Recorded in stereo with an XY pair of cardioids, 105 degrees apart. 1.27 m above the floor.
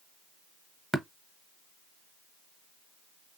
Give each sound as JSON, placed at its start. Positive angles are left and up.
{"t": 0.9, "sound": "tapping", "azimuth_deg": -15, "distance_m": 0.7}